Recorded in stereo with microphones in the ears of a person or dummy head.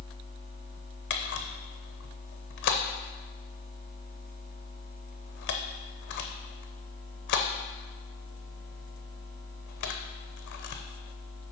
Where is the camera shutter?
60° left (ahead or behind), 0.7 m.